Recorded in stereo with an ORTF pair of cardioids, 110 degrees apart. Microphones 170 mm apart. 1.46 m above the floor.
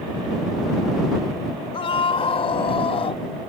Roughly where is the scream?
Ahead left.